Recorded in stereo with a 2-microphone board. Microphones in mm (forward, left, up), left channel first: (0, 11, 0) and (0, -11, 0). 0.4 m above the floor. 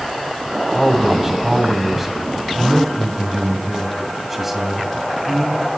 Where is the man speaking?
10° right (ahead or behind), 3 m.